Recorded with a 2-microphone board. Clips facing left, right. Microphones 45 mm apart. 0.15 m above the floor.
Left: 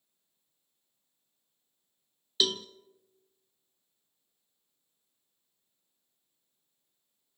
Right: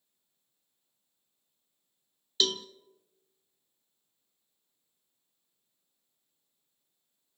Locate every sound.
2.4 s a cowbell: 5° left (ahead or behind), 0.6 m